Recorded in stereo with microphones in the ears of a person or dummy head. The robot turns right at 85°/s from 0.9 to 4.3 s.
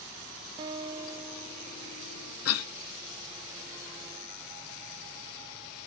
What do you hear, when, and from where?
0.6 s a guitar: 30° right, 0.5 m; by 2.4 s 95° left, 0.5 m
2.5 s a cough: 85° left, 0.8 m; by 2.7 s 75° left (ahead or behind), 0.8 m